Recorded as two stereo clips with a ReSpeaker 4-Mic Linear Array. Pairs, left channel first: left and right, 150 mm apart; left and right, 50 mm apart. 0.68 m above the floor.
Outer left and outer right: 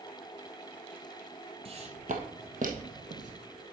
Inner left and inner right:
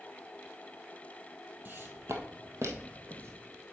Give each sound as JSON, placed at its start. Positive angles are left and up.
{"t": 1.6, "sound": "footsteps", "side_deg": -40, "distance_m": 1.3}